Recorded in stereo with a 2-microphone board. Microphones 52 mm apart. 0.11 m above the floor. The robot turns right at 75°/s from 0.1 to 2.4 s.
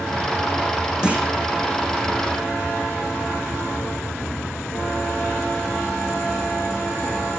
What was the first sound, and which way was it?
A clunk, 15° right (ahead or behind).